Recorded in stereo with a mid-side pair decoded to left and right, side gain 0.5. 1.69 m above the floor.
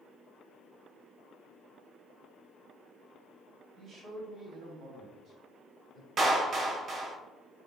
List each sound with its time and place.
3.8 s a man speaking: 55° right, 3 m; by 6.1 s 65° right, 4.5 m
6.2 s a clap: 50° right, 1.5 m